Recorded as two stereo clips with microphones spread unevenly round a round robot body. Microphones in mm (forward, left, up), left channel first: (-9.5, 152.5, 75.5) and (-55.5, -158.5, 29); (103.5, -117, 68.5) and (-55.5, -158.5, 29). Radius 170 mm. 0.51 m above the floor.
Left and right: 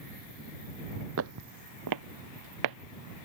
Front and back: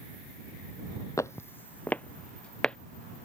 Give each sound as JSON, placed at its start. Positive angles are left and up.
{"t": 1.2, "sound": "footsteps", "azimuth_deg": -45}